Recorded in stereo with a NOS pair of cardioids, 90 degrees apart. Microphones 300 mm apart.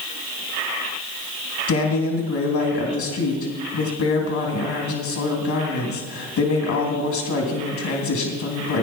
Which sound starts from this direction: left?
A woman speaking, at 1.7 s.